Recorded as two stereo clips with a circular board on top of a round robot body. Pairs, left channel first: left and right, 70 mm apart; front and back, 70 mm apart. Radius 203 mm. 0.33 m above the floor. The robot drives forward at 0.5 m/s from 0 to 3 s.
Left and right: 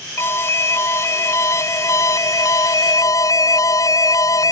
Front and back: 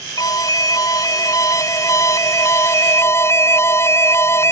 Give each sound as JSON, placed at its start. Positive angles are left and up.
{"t": 0.2, "sound": "an alarm", "azimuth_deg": 35}